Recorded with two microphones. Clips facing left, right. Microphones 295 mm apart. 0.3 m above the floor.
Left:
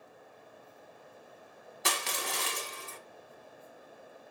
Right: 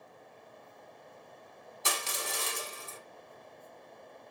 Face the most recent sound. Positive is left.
turn(degrees=70)  # may be behind; listen again after turning